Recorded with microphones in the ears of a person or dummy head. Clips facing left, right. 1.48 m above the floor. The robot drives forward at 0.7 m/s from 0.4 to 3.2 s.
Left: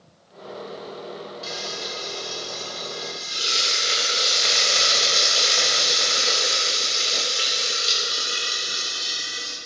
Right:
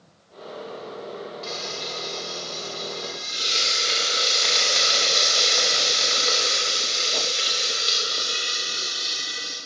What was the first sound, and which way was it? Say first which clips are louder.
Frying: even; 15° left (ahead or behind).